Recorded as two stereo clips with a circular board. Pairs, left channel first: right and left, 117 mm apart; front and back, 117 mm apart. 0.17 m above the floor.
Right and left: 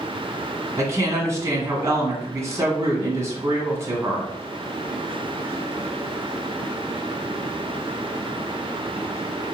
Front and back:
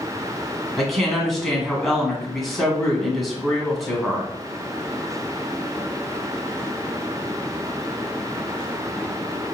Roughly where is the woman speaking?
Left.